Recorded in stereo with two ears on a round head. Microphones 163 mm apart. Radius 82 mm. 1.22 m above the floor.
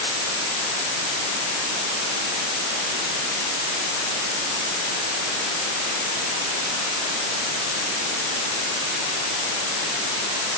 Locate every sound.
Only background noise.